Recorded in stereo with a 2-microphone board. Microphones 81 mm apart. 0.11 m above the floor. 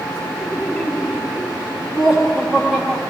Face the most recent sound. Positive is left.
turn(degrees=-10)  # may be behind; listen again after turning